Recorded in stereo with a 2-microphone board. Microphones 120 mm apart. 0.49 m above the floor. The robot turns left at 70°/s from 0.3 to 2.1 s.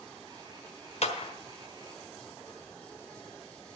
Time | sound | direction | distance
1.0 | a clap | 60° left (ahead or behind) | 1.4 m